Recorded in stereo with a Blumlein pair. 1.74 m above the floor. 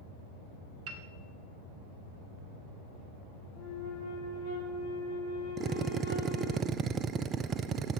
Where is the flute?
70° left, 6.5 m.